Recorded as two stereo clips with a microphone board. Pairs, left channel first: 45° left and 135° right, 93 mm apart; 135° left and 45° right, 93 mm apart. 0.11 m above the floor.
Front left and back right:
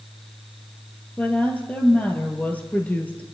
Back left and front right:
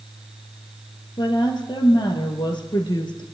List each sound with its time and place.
1.2 s a woman speaking: 115° left, 2 m